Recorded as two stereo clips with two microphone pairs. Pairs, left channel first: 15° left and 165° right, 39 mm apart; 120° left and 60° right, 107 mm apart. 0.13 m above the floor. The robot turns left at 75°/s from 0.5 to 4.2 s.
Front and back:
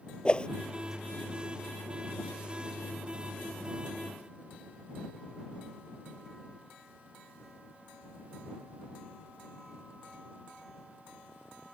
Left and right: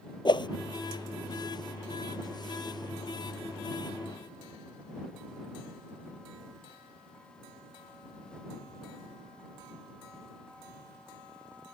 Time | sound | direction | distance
0.2 | a whoosh | 80° left | ?